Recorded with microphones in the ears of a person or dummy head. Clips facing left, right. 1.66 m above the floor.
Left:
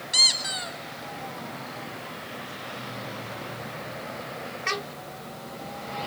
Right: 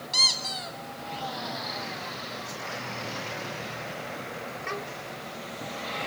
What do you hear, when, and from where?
0.1 s a squeak: 15° left (ahead or behind), 1.6 m